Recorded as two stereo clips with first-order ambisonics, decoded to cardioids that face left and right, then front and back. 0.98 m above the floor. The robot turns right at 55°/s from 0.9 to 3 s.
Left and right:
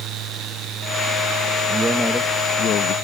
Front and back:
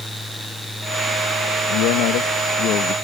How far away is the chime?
I don't hear a chime.